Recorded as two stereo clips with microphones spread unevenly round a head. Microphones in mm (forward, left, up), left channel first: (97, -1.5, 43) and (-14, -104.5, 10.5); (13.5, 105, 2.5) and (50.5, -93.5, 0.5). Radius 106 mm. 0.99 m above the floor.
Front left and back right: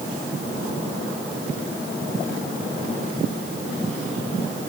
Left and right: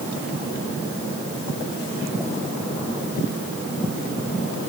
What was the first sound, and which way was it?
Only background noise.